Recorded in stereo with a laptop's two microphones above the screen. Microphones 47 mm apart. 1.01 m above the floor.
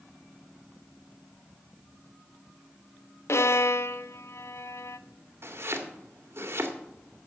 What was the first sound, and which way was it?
A violin, 65° left (ahead or behind).